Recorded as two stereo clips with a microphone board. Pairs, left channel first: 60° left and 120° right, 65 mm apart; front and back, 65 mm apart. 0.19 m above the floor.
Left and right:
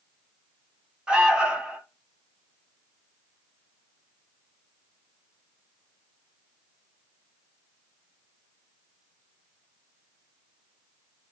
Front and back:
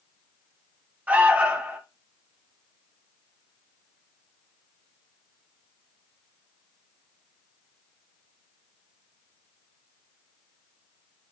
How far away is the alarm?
About 0.9 m.